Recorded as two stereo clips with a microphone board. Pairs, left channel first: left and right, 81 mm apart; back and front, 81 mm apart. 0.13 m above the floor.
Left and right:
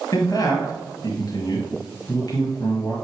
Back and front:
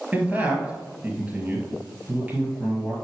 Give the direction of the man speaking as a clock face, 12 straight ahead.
10 o'clock.